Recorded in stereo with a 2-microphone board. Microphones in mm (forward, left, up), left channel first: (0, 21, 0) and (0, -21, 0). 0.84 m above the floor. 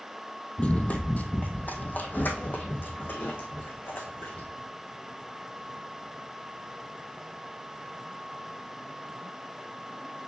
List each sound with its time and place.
0.6 s running footsteps: 30° left (ahead or behind), 0.9 m; by 4.5 s 55° left (ahead or behind), 2.5 m